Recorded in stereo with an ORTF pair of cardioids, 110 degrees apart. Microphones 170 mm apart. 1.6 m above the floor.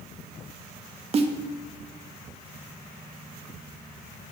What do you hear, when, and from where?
1.1 s a snare drum: 35° right, 0.8 m